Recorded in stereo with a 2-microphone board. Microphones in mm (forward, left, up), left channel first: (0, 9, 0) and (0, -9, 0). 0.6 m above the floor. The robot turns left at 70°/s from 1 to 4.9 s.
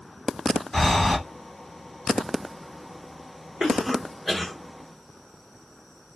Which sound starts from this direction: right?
A cough, at 3.6 s.